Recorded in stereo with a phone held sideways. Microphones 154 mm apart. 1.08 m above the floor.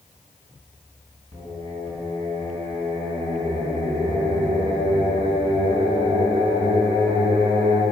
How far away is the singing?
About 5 m.